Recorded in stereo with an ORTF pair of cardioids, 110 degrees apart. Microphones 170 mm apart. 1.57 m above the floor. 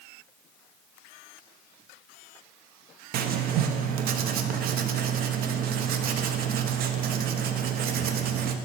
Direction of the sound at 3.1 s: 65° right.